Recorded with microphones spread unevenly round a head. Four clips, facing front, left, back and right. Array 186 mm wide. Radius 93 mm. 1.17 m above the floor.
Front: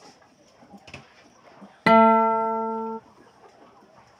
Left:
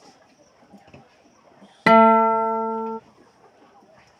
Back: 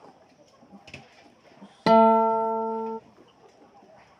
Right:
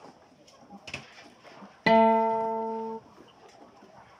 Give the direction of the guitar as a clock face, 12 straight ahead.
9 o'clock.